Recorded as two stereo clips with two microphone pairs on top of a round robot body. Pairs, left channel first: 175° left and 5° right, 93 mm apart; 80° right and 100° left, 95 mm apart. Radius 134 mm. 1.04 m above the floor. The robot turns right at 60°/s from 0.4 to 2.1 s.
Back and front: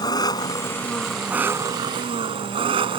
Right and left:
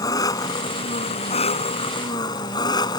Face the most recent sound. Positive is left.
turn(degrees=-30)